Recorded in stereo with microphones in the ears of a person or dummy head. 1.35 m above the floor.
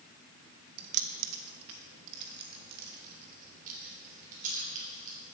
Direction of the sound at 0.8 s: 50° right (ahead or behind).